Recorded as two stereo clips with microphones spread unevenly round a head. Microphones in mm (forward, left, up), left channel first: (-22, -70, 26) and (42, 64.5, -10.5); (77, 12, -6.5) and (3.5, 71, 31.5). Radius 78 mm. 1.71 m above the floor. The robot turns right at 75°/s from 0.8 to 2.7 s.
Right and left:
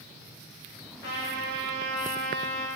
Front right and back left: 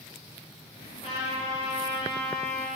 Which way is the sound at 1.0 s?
100° right.